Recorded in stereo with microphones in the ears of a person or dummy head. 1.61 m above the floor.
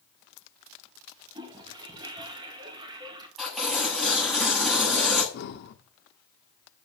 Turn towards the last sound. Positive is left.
turn(degrees=50)  # may be behind; listen again after turning